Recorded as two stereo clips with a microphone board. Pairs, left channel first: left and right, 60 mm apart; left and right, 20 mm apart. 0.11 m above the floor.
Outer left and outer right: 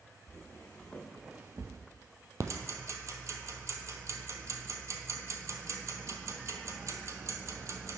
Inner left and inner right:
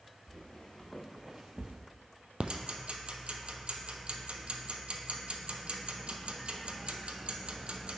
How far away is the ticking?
About 0.6 m.